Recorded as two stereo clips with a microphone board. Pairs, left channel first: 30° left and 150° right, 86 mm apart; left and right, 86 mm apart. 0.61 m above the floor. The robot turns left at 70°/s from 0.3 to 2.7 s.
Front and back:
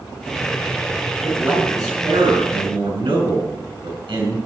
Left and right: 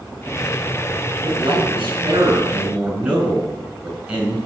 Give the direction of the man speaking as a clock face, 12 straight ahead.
2 o'clock.